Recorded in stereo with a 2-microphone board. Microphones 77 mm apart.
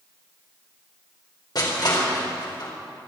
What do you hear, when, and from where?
1.6 s crushing: 60° left (ahead or behind), 4.5 m